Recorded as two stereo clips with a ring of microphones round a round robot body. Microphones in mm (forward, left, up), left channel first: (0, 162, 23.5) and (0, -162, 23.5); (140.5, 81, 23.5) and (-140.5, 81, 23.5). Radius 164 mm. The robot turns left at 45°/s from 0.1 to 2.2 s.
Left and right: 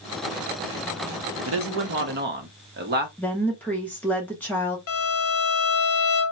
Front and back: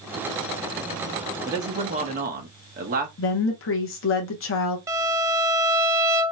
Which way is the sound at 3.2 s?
5° left.